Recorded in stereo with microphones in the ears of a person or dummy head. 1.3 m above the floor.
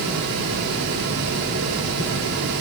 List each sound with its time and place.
Only background noise.